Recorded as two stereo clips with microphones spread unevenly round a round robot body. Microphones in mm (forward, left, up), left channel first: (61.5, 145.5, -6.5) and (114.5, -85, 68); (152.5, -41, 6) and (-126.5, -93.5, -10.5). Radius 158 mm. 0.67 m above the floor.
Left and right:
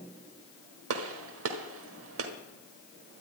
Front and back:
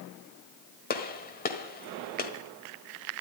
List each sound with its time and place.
0.9 s a gunshot: 50° right, 1.7 m